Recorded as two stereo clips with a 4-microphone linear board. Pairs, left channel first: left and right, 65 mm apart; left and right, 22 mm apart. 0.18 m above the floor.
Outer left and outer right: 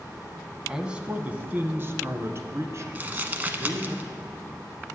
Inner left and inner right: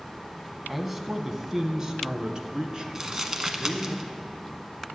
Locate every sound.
0.7 s a man speaking: 10° right (ahead or behind), 1.0 m; by 4.0 s 50° right (ahead or behind), 2.5 m
3.0 s crumpling: 25° right (ahead or behind), 0.9 m